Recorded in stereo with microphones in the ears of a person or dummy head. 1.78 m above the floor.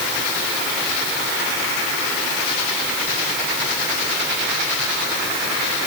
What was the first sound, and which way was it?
Only background noise.